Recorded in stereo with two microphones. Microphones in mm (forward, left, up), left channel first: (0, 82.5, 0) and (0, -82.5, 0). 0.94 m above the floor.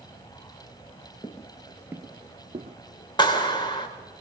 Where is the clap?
30° left (ahead or behind), 3.5 m.